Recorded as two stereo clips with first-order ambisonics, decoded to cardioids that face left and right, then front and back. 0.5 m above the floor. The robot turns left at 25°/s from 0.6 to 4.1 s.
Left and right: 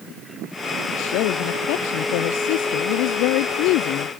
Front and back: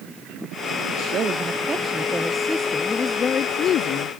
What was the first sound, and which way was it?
A woman speaking, 125° left.